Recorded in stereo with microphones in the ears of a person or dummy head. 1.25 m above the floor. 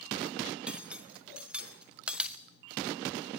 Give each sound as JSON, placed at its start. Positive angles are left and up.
{"t": 0.7, "sound": "cutlery clinking", "side_deg": -10, "distance_m": 0.7}